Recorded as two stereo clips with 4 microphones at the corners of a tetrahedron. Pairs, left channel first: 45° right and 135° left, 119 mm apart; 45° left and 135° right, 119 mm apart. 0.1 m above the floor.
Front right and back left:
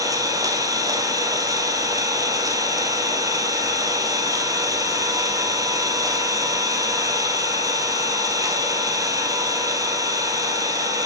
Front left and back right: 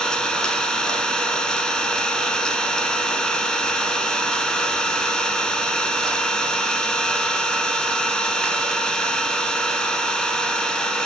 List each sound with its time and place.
0.0 s an engine running: 125° left, 1.0 m